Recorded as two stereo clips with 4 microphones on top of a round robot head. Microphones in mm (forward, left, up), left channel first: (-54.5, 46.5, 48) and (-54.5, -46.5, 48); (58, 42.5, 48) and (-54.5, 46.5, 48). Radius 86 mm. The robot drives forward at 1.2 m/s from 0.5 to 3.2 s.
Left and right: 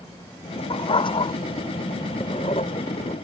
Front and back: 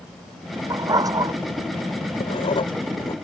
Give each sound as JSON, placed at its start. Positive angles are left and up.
{"t": 0.7, "sound": "a dog barking", "azimuth_deg": 120}
{"t": 2.2, "sound": "writing", "azimuth_deg": 35}